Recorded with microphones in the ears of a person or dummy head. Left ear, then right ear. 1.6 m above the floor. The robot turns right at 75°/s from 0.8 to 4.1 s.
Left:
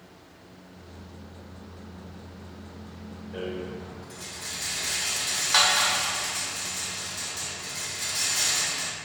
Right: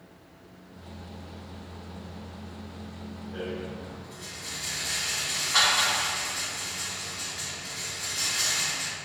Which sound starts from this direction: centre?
A rattle, at 3.3 s.